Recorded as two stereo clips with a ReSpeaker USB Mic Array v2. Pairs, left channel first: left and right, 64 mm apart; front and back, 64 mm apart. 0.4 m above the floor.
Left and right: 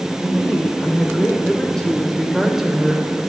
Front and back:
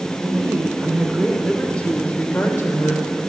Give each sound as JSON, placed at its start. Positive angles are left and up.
{"t": 0.2, "sound": "a woman speaking", "azimuth_deg": 140, "distance_m": 1.2}